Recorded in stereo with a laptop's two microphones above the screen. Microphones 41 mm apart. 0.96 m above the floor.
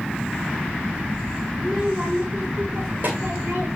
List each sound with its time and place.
1.6 s a child speaking: 10° right (ahead or behind), 1.7 m; by 3.7 s 60° right (ahead or behind), 3.5 m